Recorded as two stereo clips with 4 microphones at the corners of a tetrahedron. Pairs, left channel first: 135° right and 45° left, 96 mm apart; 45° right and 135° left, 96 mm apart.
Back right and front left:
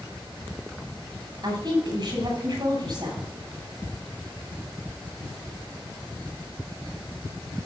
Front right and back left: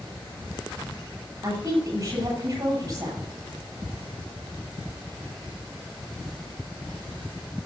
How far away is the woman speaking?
About 7.5 m.